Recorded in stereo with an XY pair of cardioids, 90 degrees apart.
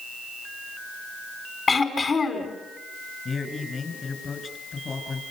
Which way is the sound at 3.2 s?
45° left.